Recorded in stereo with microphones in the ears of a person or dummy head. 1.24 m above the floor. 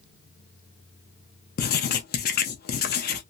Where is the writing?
45° left (ahead or behind), 0.5 m.